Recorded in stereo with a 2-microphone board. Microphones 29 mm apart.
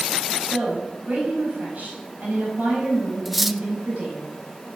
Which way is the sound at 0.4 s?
55° right (ahead or behind).